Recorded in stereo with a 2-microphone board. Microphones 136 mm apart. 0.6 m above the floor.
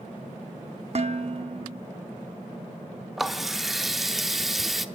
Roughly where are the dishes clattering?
Right.